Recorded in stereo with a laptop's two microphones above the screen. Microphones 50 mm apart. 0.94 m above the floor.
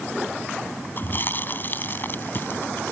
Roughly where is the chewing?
Left.